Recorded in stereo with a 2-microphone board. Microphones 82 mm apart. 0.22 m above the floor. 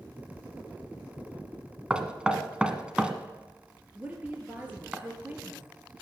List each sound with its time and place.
1.9 s knocking: 10° right (ahead or behind), 1.4 m
4.0 s a woman speaking: 20° right (ahead or behind), 4 m